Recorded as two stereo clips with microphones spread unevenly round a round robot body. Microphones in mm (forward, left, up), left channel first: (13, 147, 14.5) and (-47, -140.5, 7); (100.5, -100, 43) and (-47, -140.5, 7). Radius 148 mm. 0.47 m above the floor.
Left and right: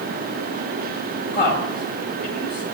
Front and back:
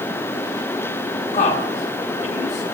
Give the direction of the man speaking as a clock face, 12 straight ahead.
11 o'clock.